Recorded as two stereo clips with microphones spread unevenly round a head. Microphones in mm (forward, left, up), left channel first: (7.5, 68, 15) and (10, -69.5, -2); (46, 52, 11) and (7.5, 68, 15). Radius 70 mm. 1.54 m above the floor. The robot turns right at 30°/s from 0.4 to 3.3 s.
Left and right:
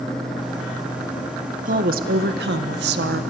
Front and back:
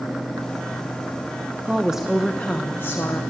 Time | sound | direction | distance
1.6 | a woman speaking | 125° right | 1.5 m